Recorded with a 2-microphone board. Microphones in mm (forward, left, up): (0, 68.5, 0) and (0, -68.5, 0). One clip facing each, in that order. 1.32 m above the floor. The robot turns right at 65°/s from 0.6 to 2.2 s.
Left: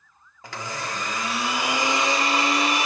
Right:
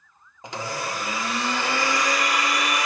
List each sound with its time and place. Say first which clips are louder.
0.4 s a blender: right 2 dB; 45° right, 0.9 m; by 2.9 s 60° left, 0.9 m